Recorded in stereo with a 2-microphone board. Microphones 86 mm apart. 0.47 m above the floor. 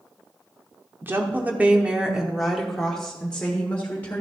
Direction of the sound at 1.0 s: 25° right (ahead or behind).